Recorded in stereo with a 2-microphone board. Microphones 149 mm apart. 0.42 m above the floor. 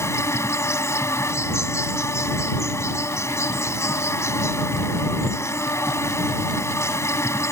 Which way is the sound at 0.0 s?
20° left (ahead or behind).